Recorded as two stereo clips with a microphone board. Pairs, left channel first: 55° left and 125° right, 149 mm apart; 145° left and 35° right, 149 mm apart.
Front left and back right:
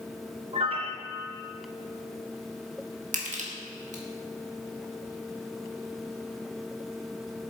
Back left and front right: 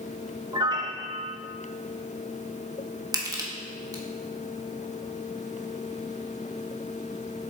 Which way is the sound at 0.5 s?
85° right.